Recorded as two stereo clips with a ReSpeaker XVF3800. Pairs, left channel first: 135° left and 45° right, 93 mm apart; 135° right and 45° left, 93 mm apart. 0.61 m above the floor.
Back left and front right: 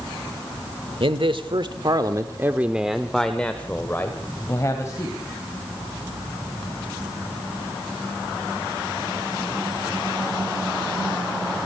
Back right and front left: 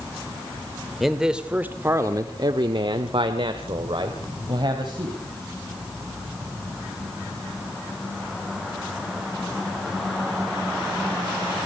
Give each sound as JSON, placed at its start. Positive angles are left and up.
{"t": 1.0, "sound": "a man speaking", "azimuth_deg": -45, "distance_m": 2.0}